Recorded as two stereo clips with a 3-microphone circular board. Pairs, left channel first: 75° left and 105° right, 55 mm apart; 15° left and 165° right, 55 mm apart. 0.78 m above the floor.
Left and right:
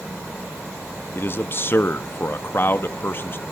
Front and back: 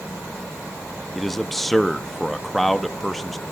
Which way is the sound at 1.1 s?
105° left.